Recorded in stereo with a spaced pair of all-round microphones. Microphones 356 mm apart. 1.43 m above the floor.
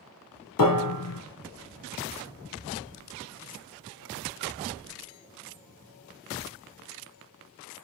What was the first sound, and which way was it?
A piano, 65° left (ahead or behind).